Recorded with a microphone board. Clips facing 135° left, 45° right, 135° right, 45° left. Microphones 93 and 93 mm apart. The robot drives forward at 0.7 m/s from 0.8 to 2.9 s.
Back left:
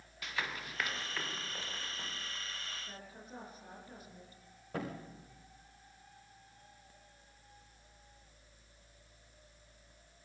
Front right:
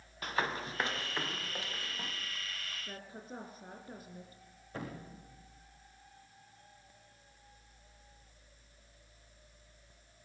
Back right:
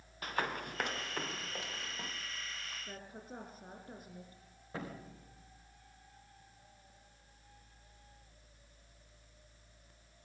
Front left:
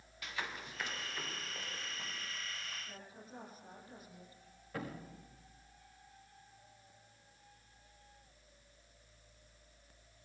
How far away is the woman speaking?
About 6.5 m.